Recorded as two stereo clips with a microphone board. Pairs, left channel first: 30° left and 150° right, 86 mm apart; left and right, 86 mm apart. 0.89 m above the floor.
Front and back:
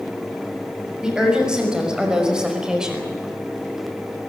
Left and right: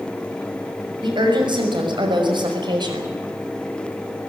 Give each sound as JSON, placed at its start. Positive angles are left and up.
{"t": 1.0, "sound": "a woman speaking", "azimuth_deg": -70, "distance_m": 6.0}